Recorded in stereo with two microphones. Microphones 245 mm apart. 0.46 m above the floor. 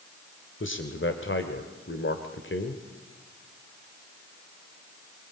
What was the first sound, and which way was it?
A man speaking, 50° left (ahead or behind).